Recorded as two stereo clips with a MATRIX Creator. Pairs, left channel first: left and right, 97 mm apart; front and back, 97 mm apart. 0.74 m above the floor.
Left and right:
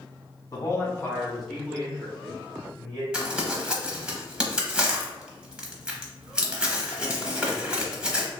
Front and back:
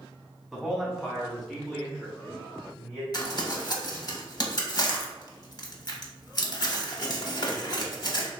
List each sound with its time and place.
0.5 s a man speaking: 95° left, 1.1 m; by 3.0 s 80° right, 1.5 m
3.1 s crumpling: 10° right, 0.7 m